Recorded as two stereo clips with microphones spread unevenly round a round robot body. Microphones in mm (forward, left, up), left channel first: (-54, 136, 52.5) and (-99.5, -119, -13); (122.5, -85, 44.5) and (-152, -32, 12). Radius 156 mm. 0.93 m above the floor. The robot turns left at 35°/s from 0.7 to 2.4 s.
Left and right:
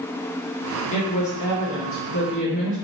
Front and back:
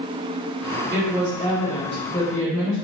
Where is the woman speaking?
95° left, 1.1 m; by 2.8 s 45° left, 1.1 m.